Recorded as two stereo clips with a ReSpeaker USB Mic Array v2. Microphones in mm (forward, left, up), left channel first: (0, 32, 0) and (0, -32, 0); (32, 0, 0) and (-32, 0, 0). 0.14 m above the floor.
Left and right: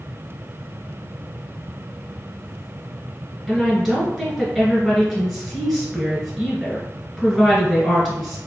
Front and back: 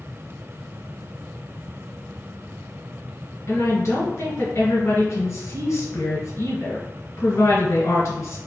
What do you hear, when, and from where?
3.5 s a woman speaking: 5° right, 1.5 m